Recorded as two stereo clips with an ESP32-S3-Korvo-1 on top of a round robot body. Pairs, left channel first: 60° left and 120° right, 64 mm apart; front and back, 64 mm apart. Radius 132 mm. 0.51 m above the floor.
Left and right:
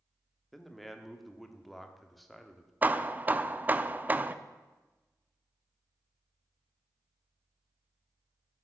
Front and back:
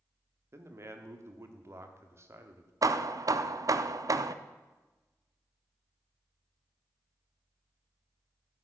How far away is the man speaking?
About 1.3 m.